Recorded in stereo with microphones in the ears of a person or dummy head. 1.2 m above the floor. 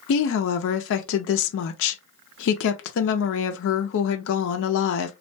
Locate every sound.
0.1 s a woman speaking: 75° left (ahead or behind), 0.5 m